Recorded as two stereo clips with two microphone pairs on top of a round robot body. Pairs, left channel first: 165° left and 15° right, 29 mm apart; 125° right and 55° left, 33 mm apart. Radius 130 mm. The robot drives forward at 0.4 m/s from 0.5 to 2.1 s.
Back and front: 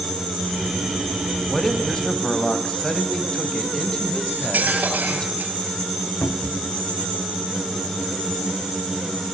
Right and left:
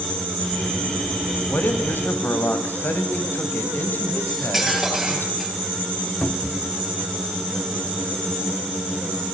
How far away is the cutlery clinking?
About 10 m.